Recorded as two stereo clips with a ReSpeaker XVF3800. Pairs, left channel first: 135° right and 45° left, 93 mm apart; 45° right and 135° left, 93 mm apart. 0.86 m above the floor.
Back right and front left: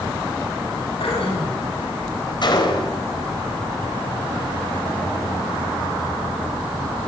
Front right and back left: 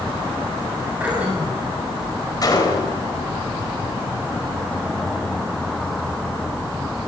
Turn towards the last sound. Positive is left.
turn(degrees=-95)